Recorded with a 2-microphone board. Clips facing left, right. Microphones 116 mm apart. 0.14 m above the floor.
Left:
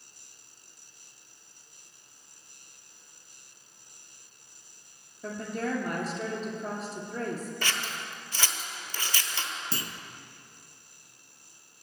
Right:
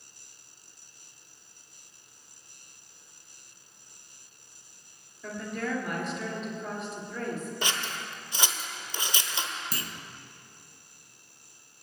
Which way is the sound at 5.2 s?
40° left (ahead or behind).